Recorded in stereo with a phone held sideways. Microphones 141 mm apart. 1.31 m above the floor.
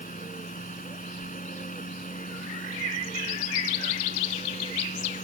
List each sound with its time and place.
0.0 s a fan: 75° left (ahead or behind)